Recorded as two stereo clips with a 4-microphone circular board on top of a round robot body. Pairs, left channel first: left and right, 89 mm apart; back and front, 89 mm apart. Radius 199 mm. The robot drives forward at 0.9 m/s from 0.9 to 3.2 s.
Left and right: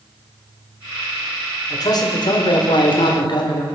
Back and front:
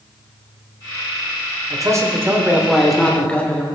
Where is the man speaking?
45° left, 1.7 m; by 3.6 s 105° left, 1.4 m.